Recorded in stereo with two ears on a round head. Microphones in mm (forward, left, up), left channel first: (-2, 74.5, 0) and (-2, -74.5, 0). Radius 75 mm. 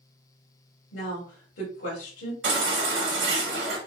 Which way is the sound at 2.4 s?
80° right.